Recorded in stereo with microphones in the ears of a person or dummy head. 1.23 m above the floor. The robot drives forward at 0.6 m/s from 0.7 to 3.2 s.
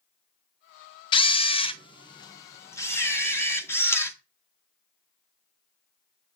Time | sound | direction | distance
1.1 | a camera shutter | 25° left (ahead or behind) | 0.6 m